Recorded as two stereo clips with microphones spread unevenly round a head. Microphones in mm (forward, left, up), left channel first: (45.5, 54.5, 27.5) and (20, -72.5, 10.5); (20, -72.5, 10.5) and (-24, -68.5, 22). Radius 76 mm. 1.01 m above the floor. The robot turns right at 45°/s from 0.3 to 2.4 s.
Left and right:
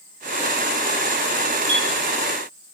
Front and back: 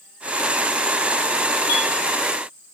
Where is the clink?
60° left, 1.7 m; by 1.8 s 70° left, 1.7 m.